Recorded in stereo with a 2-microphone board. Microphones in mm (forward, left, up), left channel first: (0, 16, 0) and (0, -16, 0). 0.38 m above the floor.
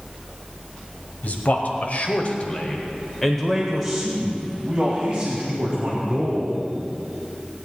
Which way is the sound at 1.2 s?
55° left (ahead or behind).